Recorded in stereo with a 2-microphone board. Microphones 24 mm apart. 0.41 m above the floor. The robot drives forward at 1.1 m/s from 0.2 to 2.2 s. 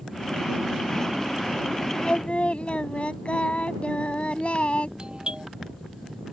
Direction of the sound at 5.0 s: 40° right (ahead or behind).